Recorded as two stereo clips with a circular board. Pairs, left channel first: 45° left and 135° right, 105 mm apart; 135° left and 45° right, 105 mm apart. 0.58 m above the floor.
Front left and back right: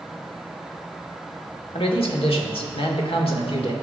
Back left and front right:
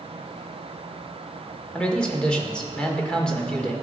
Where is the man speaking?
55° left, 1.7 m.